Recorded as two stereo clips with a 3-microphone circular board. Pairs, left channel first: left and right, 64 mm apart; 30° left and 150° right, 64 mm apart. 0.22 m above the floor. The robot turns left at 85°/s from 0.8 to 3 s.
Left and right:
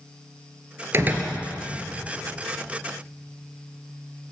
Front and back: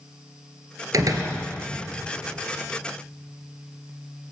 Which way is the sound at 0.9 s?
135° right.